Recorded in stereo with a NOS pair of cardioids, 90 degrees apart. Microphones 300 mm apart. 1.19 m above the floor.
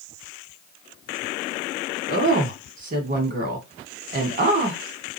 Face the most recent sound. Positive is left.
turn(degrees=-40)